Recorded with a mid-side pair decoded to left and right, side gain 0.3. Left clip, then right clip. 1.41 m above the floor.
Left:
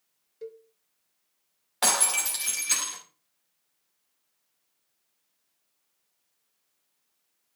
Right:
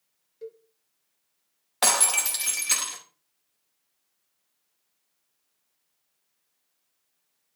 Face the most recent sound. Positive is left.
turn(degrees=-35)